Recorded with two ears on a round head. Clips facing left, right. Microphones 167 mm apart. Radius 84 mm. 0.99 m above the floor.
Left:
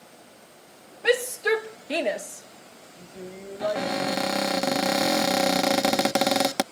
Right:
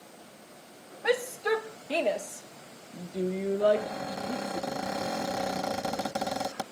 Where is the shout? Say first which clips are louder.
Left 4 dB; 30° left (ahead or behind); by 4.6 s 55° right (ahead or behind).